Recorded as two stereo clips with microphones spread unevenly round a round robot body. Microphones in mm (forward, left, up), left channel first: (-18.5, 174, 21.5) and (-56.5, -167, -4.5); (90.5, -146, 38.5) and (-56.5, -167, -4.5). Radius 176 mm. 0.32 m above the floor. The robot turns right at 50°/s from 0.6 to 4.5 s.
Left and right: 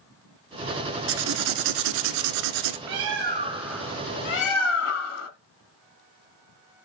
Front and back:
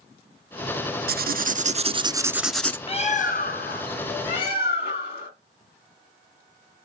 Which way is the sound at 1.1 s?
155° right.